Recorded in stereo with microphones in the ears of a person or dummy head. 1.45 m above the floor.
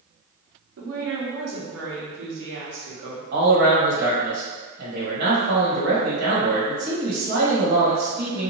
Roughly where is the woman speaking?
Right.